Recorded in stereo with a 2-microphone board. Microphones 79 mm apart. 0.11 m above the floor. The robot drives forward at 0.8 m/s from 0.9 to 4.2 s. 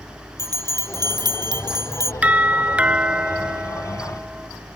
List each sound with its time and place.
0.4 s a bell: 50° right (ahead or behind)
2.2 s a doorbell: 20° right (ahead or behind); by 4.5 s 10° right (ahead or behind)